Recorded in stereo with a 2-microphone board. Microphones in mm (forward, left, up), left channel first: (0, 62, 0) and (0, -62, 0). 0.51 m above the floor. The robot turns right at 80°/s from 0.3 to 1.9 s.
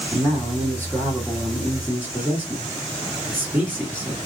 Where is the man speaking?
20° left (ahead or behind), 1.4 m; by 4.2 s 15° right (ahead or behind), 1.4 m.